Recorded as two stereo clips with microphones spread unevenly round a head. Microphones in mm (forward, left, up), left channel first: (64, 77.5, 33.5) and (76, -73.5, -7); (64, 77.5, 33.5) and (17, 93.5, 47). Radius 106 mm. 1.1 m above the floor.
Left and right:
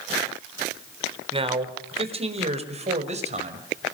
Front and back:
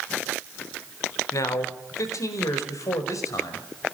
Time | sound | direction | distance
1.3 | a man speaking | 30° right | 4 m